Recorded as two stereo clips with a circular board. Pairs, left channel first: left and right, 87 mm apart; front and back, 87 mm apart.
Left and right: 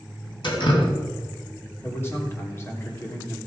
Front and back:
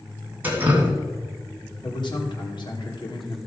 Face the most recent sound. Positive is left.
turn(degrees=30)